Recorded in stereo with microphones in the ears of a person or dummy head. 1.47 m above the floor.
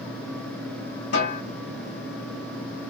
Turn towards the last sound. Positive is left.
turn(degrees=60)  # may be behind; listen again after turning